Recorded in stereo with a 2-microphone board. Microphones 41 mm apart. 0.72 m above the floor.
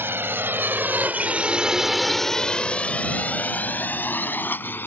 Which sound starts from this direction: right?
A drone, at 0.0 s.